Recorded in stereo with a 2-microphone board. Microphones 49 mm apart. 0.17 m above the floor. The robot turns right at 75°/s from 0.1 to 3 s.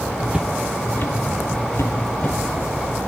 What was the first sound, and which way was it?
Footsteps, 20° right (ahead or behind).